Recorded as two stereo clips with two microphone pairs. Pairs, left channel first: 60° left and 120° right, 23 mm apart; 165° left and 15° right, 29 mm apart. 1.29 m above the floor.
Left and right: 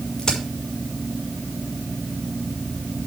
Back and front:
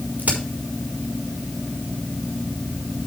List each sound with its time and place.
0.2 s a crack: 10° left, 6 m